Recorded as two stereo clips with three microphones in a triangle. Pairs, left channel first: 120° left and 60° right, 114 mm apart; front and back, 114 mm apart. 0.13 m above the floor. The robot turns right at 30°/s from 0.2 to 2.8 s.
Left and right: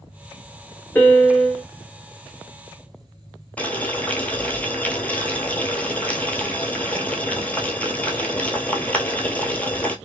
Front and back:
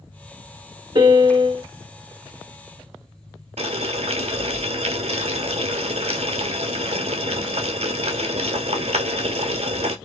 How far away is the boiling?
About 0.5 m.